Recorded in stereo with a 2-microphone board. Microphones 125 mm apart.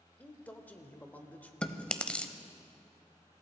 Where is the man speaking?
15° left (ahead or behind), 1.1 m.